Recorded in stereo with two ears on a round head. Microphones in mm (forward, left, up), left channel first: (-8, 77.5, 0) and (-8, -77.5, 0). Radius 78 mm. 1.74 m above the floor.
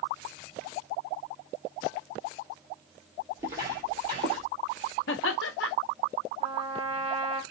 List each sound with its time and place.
3.4 s footsteps: 20° right (ahead or behind), 1.8 m; by 4.5 s 35° right (ahead or behind), 2 m
5.1 s laughter: 70° left (ahead or behind), 0.5 m
6.4 s a trumpet: 35° right (ahead or behind), 0.7 m